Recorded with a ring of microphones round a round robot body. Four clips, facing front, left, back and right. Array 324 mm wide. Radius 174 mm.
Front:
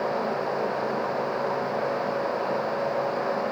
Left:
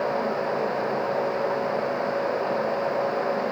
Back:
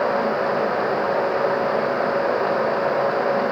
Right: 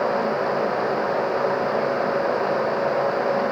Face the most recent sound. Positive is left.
No sound to turn to.